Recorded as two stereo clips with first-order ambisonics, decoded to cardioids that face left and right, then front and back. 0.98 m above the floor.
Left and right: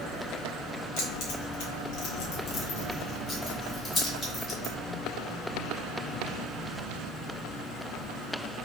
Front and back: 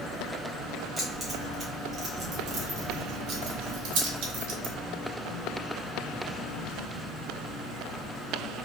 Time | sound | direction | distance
1.0 | keys jangling | 90° left | 1.4 m